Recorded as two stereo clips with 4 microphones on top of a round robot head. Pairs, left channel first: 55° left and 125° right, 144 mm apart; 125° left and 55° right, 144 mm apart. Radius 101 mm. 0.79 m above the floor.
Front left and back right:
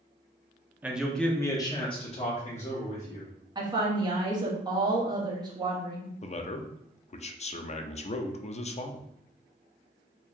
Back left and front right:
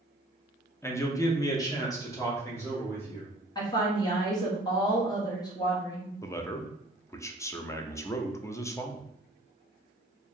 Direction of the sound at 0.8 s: 175° left.